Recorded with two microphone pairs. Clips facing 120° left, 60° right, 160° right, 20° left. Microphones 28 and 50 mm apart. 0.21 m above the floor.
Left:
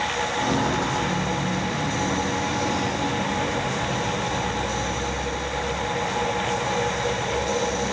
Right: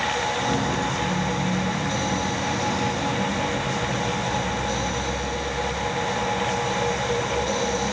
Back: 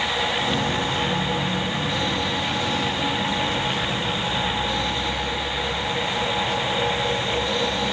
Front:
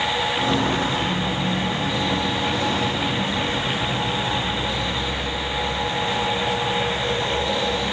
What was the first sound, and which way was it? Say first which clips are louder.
Footsteps: left 1 dB, front 2 dB; 55° left.